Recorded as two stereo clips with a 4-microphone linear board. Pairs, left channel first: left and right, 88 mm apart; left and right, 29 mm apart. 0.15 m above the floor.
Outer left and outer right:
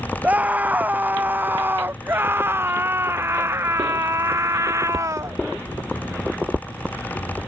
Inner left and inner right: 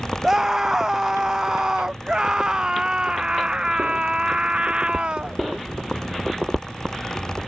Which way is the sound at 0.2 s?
15° right (ahead or behind).